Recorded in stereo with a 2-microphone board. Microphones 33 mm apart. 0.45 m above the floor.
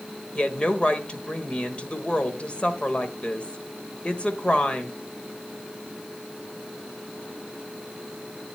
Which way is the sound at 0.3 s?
30° left (ahead or behind).